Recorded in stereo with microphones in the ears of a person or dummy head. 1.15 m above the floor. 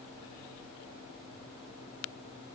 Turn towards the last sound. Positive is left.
No sound to turn to.